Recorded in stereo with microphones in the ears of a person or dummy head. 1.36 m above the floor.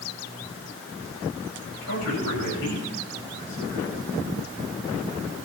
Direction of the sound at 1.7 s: 85° left.